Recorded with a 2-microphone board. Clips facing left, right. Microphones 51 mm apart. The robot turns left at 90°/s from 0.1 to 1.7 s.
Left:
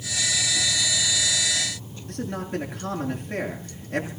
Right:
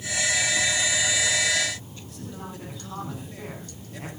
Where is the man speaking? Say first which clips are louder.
Left 9 dB; 60° left (ahead or behind), 8 m.